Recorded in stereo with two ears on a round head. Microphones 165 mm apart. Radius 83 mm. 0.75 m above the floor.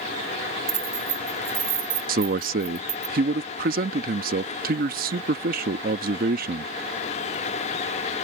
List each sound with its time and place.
0.7 s keys jangling: 20° right (ahead or behind)
2.1 s a man speaking: 50° right (ahead or behind)